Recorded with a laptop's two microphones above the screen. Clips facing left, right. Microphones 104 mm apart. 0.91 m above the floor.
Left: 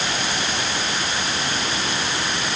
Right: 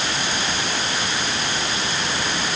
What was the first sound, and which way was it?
Only background noise.